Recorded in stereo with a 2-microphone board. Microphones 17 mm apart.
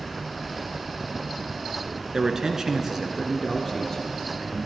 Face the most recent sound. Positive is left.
turn(degrees=15)  # may be behind; listen again after turning